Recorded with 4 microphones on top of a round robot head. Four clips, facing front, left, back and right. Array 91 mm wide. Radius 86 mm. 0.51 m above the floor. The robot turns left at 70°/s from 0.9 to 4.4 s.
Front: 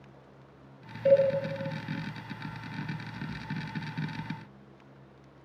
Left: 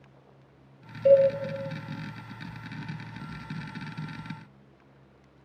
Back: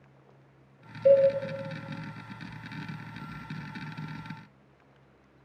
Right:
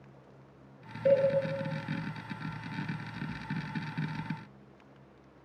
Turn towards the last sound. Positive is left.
turn(degrees=-115)